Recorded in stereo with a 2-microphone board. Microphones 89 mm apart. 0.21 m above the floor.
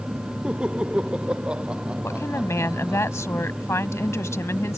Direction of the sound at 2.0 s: 30° left (ahead or behind).